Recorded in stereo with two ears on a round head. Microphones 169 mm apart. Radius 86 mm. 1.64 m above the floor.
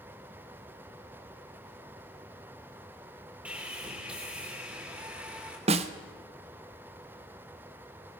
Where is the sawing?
5° right (ahead or behind), 3.5 m.